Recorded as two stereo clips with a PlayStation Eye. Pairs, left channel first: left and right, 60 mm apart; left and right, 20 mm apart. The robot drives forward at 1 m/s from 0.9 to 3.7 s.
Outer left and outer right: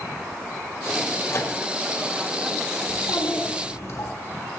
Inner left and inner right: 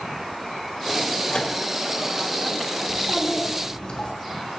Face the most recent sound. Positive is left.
turn(degrees=60)  # may be behind; listen again after turning